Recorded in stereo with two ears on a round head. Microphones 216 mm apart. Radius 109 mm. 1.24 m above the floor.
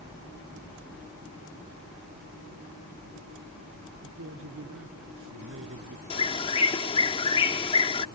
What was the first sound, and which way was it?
A man speaking, 55° right (ahead or behind).